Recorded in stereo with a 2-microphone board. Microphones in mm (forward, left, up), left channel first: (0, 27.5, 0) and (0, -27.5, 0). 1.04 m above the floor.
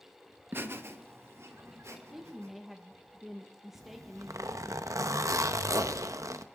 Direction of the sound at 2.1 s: 5° right (ahead or behind).